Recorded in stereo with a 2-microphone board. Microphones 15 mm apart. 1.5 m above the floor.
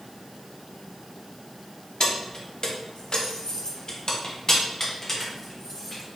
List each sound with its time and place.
2.0 s keys jangling: 50° left (ahead or behind), 0.9 m; by 6.2 s 10° left (ahead or behind), 1.8 m